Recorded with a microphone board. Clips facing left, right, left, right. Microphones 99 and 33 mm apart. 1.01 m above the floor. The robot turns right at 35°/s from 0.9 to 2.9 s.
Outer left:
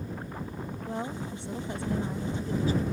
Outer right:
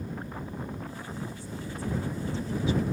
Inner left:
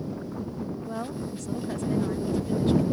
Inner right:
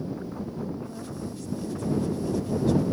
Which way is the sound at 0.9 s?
75° left.